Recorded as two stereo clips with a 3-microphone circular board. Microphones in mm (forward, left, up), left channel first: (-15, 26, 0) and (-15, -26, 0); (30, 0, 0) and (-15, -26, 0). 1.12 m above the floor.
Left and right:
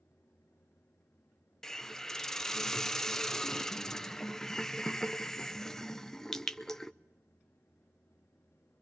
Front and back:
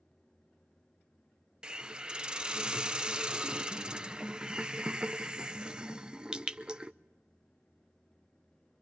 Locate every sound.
1.6 s a hiss: 160° left, 0.5 m